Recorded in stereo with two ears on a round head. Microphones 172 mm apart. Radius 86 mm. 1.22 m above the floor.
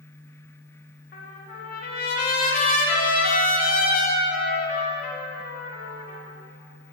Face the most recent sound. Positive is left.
turn(degrees=50)  # may be behind; listen again after turning